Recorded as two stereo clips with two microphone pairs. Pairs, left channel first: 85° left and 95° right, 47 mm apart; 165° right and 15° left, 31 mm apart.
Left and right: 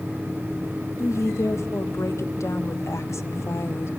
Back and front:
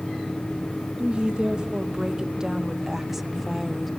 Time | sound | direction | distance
1.0 | a woman speaking | 70° left | 2.5 m